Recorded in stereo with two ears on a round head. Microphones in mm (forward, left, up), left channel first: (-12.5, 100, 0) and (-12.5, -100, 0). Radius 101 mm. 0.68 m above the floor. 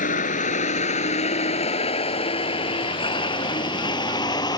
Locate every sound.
0.0 s a vehicle: 40° left (ahead or behind); by 4.6 s 20° left (ahead or behind)